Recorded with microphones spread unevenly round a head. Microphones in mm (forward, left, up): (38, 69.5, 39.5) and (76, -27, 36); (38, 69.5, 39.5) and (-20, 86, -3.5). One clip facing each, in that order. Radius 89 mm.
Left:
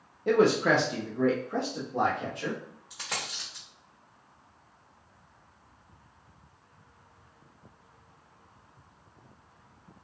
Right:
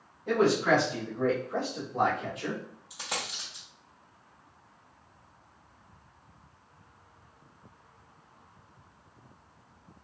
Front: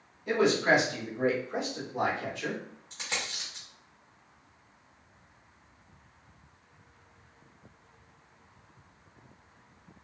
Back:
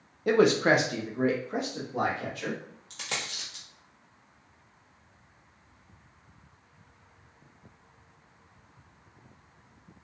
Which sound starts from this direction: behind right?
A dropped coin, at 2.9 s.